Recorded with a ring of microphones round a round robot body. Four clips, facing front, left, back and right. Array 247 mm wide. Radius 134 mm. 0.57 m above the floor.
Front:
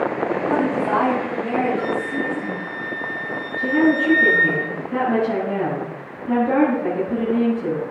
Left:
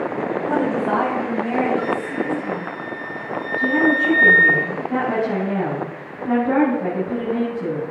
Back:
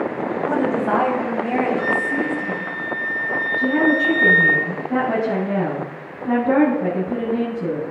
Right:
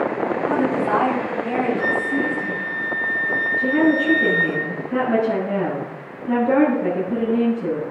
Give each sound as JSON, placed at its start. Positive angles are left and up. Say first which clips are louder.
{"t": 0.5, "sound": "a woman speaking", "louder": "even, back 2 dB", "azimuth_deg": 145, "distance_m": 4.0}
{"t": 1.8, "sound": "a flute", "louder": "right 1 dB, back 2 dB", "azimuth_deg": 120, "distance_m": 5.0}
{"t": 3.6, "sound": "a woman speaking", "louder": "even, front 1 dB", "azimuth_deg": 140, "distance_m": 6.0}